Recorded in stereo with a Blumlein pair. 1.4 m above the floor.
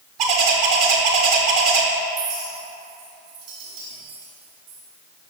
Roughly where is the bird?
Ahead right.